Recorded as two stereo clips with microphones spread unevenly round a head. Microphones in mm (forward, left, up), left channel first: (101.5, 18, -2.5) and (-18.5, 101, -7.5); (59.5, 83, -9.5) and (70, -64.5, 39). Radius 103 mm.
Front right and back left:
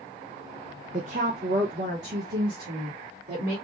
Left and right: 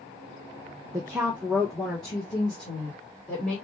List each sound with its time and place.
0.9 s a woman speaking: 165° right, 0.5 m; by 3.5 s 175° left, 2.5 m